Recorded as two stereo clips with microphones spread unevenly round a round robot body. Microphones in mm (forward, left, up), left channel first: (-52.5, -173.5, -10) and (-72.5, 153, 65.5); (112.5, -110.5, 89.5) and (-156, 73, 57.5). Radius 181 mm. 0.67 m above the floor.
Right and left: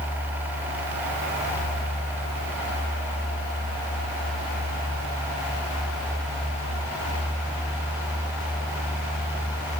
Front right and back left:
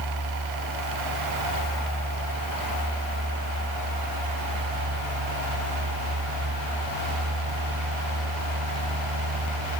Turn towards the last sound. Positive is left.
No sound to turn to.